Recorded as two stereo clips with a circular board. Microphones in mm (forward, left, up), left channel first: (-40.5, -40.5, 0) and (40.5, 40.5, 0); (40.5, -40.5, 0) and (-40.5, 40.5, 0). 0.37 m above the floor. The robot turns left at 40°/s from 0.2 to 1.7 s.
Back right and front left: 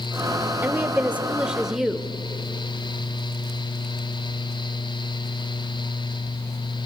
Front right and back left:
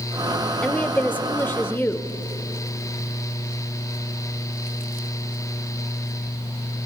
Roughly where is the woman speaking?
Ahead.